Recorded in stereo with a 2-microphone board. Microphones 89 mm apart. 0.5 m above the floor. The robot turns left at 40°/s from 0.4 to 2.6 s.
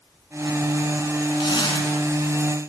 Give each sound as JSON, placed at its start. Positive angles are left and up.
{"t": 1.4, "sound": "a zipper", "side_deg": 65, "distance_m": 4.5}